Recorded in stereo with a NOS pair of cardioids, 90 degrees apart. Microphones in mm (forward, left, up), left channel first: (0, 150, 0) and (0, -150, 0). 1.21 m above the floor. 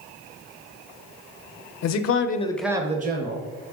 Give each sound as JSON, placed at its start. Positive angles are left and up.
{"t": 1.8, "sound": "a man speaking", "azimuth_deg": 65, "distance_m": 0.7}